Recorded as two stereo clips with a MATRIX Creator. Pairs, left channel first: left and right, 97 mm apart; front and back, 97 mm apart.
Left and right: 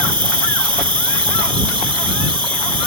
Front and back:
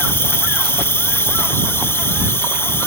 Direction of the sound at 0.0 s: 65° right.